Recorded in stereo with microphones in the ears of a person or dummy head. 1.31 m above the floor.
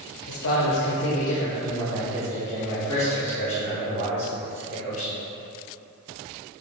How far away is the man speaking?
About 0.9 m.